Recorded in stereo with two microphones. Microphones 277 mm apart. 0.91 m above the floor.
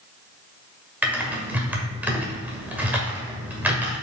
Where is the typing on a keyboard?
5° right (ahead or behind), 1.7 m.